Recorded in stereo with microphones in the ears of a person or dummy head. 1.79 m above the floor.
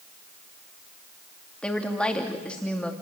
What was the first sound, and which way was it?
A woman speaking, 5° left (ahead or behind).